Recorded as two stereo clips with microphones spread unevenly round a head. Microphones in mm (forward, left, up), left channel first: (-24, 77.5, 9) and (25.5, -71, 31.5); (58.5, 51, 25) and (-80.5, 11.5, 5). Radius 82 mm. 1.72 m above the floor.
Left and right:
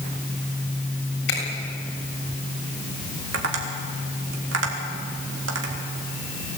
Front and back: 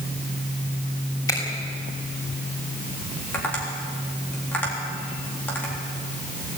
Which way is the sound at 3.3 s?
65° right.